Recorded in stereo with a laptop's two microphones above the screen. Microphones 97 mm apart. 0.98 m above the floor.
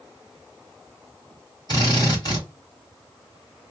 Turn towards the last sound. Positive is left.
turn(degrees=45)  # may be behind; listen again after turning